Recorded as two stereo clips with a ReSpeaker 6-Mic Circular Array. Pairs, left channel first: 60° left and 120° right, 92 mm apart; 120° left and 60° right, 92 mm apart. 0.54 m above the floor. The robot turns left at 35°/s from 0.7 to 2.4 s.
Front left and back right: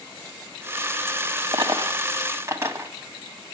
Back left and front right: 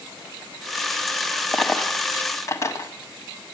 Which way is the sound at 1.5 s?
150° right.